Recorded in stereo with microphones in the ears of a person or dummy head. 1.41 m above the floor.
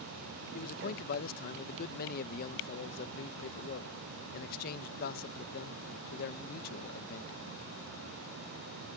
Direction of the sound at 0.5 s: 50° left (ahead or behind).